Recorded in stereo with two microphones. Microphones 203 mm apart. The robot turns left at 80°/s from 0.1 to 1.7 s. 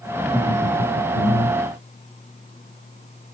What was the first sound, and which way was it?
Laughter, 175° left.